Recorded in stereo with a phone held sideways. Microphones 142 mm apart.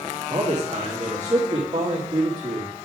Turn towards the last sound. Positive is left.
turn(degrees=-35)  # may be behind; listen again after turning